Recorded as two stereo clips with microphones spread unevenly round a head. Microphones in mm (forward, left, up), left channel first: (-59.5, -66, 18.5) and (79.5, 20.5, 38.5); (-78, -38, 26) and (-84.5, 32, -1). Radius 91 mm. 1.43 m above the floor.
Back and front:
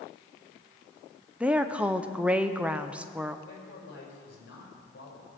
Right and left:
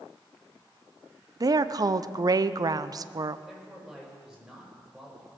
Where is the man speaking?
175° left, 7.5 m.